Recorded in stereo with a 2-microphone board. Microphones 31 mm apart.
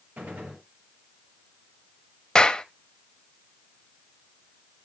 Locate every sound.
0.2 s a gunshot: 75° right (ahead or behind), 6.5 m
2.4 s a clap: 20° left (ahead or behind), 0.8 m